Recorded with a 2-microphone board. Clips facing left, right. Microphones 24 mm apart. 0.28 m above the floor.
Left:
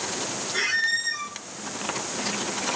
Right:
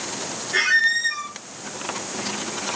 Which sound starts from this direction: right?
A squeak, at 0.5 s.